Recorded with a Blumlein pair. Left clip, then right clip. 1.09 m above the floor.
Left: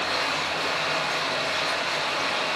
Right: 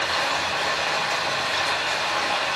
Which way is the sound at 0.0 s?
60° right.